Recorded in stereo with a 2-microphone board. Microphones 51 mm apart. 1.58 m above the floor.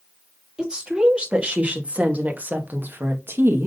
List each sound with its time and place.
0.6 s a woman speaking: 20° right (ahead or behind), 3 m; by 3.7 s 55° right (ahead or behind), 1.8 m